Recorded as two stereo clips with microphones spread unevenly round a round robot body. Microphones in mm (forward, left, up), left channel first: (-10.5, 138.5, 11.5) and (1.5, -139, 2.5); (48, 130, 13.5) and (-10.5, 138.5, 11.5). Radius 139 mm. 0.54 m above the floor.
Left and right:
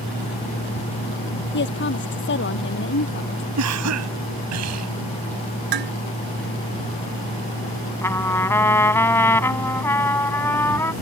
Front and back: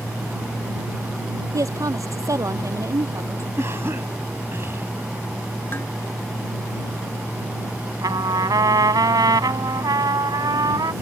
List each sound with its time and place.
1.5 s a woman speaking: 145° left
3.6 s a cough: 115° right
5.7 s dishes clattering: 90° right
8.0 s a trumpet: 175° left